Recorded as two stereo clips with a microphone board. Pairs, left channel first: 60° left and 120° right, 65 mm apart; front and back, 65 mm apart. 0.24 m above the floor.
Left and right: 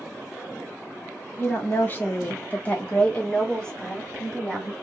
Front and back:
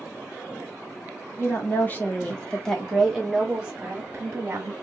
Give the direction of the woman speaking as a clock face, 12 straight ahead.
11 o'clock.